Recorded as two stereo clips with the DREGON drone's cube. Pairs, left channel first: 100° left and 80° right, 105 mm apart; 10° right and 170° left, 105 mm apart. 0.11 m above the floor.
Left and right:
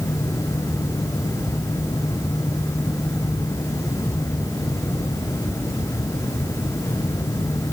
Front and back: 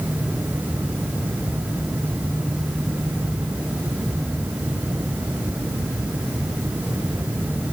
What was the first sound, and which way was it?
Only background noise.